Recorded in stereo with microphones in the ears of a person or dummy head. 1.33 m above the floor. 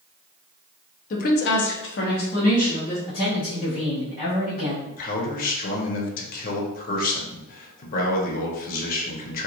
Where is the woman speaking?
45° left (ahead or behind), 0.7 m; by 3.0 s 35° left (ahead or behind), 1.2 m.